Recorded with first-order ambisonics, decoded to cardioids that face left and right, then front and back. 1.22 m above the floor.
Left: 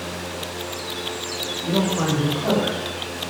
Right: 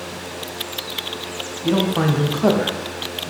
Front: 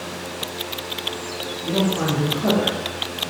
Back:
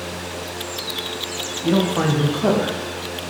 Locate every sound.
1.6 s a man speaking: 140° right, 0.7 m; by 3.3 s 90° right, 1.2 m